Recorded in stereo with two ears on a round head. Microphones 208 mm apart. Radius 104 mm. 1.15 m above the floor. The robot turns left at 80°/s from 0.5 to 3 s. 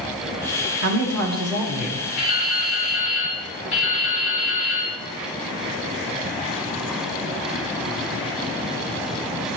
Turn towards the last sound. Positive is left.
turn(degrees=75)